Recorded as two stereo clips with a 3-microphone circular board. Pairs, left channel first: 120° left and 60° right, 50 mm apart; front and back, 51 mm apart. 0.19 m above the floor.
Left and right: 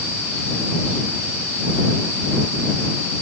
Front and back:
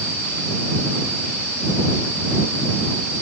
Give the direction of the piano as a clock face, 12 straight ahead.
I don't hear a piano.